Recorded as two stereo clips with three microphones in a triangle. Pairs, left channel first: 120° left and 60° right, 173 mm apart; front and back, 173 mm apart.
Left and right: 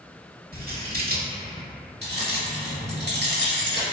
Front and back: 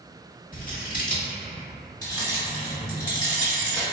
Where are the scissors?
35° right, 0.8 m.